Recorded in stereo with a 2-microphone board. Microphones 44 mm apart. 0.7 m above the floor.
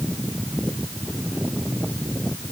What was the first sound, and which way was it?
Only background noise.